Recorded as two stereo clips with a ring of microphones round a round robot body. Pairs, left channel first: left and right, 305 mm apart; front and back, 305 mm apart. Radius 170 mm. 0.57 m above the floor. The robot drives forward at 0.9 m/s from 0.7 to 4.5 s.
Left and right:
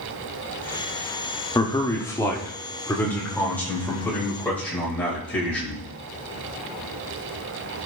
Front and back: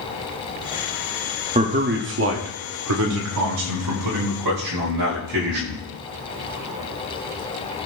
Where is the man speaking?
150° left, 1.2 m; by 5.8 s 175° left, 3.5 m.